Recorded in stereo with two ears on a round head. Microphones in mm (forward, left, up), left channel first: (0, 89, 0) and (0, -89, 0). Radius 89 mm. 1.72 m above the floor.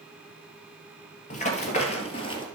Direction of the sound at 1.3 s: 35° left (ahead or behind).